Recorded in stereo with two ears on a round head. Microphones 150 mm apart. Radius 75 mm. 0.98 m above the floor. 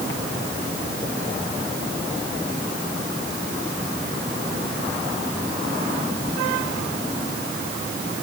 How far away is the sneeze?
No sneeze in this recording.